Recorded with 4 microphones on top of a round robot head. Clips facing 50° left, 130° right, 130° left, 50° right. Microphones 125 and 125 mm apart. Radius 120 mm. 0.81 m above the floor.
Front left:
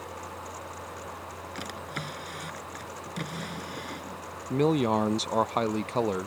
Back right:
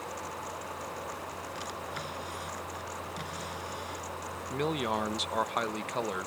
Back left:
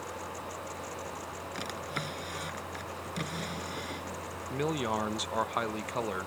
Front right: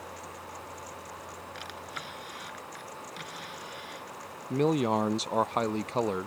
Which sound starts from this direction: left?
A drawer, at 1.6 s.